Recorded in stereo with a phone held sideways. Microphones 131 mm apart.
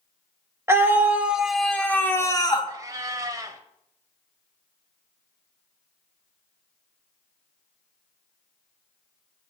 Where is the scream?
20° right (ahead or behind), 1.9 m; by 2.7 s 40° left (ahead or behind), 1.5 m.